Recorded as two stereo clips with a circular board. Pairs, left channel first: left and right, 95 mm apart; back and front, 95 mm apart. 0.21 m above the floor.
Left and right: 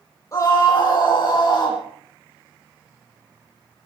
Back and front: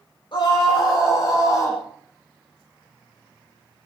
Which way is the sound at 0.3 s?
145° left.